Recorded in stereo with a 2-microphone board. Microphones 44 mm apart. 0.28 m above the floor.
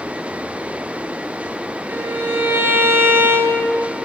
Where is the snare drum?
No snare drum in this recording.